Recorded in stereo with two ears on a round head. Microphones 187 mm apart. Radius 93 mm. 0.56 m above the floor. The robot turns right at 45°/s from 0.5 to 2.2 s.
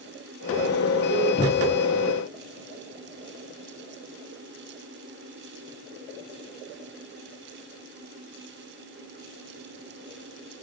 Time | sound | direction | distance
1.4 | a cupboard door | 25° left (ahead or behind) | 0.8 m